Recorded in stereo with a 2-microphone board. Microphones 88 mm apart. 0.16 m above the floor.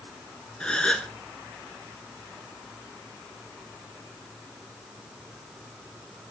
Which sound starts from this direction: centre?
A gasp, at 0.6 s.